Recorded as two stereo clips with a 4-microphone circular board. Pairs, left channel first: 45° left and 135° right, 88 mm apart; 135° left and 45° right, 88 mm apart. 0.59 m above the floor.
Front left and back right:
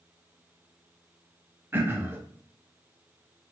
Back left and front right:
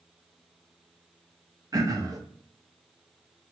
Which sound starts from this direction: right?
Throat clearing, at 1.7 s.